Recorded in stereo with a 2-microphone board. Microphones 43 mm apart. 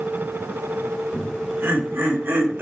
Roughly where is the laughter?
Right.